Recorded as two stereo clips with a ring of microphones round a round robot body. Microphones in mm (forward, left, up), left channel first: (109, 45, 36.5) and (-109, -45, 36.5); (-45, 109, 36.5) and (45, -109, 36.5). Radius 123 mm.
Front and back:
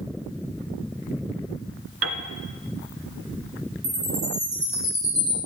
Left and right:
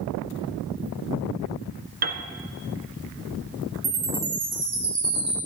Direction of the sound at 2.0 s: 120° right.